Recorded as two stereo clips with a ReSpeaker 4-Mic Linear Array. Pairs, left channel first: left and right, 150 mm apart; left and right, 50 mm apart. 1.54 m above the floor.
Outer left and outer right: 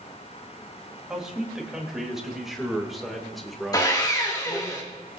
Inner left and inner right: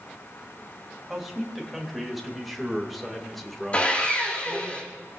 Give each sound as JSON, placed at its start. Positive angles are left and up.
{"t": 1.1, "sound": "a man speaking", "side_deg": -5, "distance_m": 3.5}
{"t": 3.7, "sound": "sawing", "side_deg": 25, "distance_m": 3.0}